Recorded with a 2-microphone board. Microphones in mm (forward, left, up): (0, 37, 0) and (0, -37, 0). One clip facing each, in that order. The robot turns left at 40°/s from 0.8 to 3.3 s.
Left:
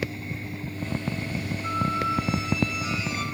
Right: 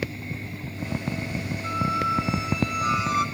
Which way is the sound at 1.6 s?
5° right.